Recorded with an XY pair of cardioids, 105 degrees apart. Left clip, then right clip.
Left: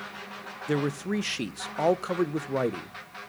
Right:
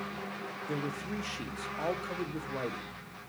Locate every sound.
0.7 s a man speaking: 60° left, 0.5 m